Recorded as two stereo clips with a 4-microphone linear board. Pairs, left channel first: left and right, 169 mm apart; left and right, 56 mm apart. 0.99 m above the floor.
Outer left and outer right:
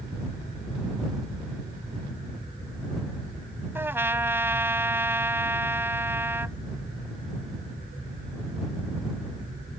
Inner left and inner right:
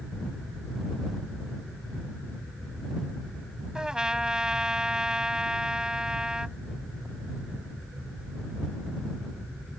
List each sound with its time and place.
3.8 s a trumpet: 15° right (ahead or behind)